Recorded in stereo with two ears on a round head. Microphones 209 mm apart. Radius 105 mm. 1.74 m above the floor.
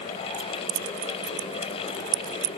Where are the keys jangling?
75° right (ahead or behind).